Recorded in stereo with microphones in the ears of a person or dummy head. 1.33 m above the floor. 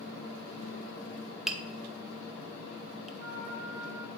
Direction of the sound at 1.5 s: Centre (ahead or behind).